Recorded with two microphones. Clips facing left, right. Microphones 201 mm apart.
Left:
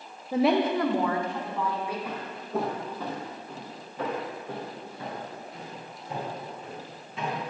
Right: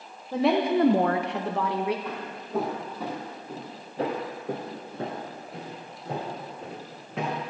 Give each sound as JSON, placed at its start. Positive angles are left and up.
{"t": 0.3, "sound": "a woman speaking", "side_deg": 10, "distance_m": 0.8}
{"t": 2.0, "sound": "footsteps", "side_deg": 10, "distance_m": 2.0}